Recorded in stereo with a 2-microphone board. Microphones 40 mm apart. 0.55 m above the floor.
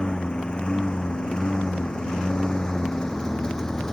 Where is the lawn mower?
25° left (ahead or behind); by 3.9 s 15° left (ahead or behind).